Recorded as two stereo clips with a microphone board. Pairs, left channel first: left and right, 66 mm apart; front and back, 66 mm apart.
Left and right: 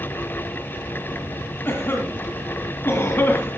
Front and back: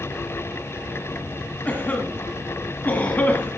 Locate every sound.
1.6 s a cough: 55° left, 1.8 m